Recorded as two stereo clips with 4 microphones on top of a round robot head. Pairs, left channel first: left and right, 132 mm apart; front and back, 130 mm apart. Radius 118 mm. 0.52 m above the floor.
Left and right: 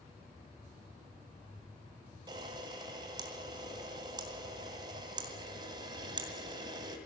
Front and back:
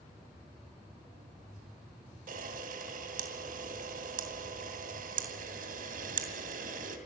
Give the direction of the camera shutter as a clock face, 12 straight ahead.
5 o'clock.